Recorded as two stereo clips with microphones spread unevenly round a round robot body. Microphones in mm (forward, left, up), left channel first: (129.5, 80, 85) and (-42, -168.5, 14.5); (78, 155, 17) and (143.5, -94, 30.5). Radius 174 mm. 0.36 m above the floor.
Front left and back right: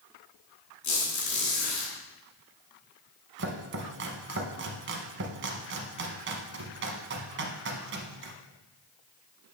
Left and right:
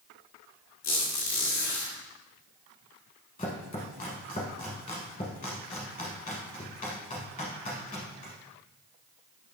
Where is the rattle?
I don't hear a rattle.